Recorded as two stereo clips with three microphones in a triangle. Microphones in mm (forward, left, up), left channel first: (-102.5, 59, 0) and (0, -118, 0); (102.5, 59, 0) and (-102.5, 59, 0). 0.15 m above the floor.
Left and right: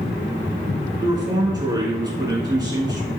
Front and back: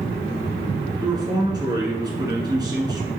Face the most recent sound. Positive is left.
turn(degrees=-120)